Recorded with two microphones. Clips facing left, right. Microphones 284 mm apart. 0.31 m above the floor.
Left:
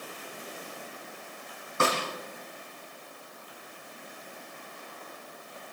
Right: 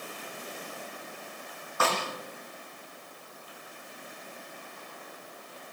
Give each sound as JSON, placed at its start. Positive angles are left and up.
{"t": 1.8, "sound": "a snare drum", "side_deg": 25, "distance_m": 9.5}